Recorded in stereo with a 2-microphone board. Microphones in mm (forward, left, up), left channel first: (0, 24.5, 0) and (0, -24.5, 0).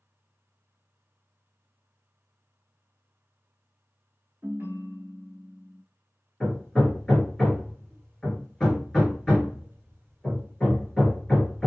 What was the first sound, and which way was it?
A ringtone, 55° right (ahead or behind).